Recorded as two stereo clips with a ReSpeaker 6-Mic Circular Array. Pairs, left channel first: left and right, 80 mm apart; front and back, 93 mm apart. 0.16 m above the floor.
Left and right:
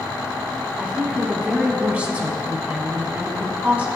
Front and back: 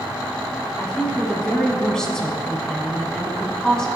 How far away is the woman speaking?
About 1.0 m.